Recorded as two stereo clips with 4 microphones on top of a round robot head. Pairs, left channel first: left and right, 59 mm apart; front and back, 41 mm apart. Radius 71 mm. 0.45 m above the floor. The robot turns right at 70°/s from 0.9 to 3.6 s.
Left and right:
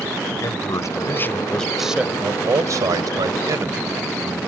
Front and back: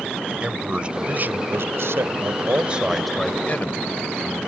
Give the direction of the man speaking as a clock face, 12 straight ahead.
8 o'clock.